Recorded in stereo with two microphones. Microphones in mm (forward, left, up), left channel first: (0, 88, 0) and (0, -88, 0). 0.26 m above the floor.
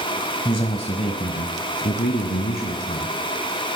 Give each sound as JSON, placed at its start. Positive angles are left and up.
{"t": 0.5, "sound": "a man speaking", "side_deg": 25, "distance_m": 1.2}